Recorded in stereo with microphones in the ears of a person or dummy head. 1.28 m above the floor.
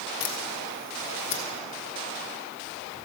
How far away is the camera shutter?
About 1.7 m.